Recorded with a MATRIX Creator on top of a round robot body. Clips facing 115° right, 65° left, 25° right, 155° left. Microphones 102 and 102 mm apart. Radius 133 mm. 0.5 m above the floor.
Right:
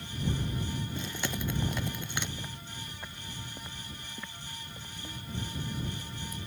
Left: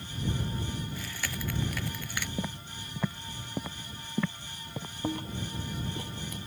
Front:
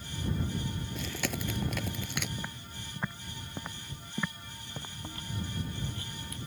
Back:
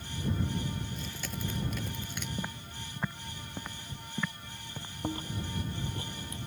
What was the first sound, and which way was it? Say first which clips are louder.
Chewing: right 3 dB, front 4 dB; 45° right.